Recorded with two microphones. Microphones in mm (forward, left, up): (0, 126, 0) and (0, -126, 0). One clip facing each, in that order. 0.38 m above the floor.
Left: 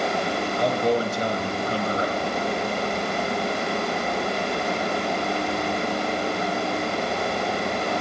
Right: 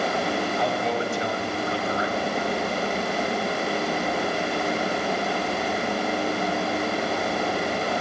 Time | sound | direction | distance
0.6 | a man speaking | 45° left (ahead or behind) | 3 m